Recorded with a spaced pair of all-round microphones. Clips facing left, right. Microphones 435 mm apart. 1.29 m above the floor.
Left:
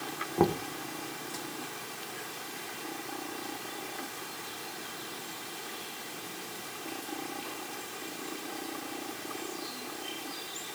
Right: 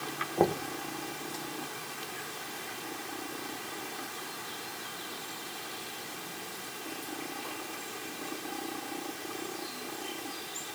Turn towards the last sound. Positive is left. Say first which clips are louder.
# left 1 dB
turn(degrees=20)  # may be behind; listen again after turning